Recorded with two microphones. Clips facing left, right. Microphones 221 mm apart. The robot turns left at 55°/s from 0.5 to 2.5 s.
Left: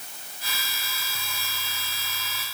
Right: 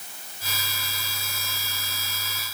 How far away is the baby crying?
No baby crying in this recording.